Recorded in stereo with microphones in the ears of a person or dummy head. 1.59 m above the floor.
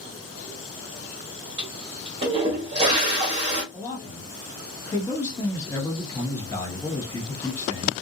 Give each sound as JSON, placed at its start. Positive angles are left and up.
{"t": 1.6, "sound": "a toilet flushing", "side_deg": -20, "distance_m": 1.0}
{"t": 3.7, "sound": "a man speaking", "side_deg": 15, "distance_m": 1.2}